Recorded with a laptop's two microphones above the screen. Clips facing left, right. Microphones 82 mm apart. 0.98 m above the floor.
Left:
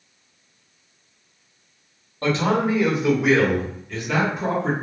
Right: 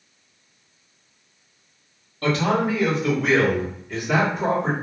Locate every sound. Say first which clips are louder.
2.2 s a man speaking: even; 30° left (ahead or behind), 1.4 m; by 4.7 s 40° right (ahead or behind), 1.0 m